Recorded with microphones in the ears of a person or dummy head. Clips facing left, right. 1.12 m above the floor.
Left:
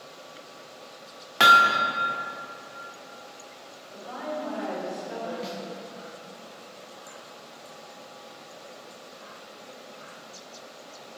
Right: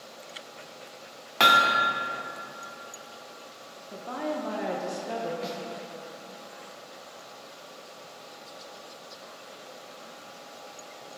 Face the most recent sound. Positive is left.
turn(degrees=0)  # may be behind; listen again after turning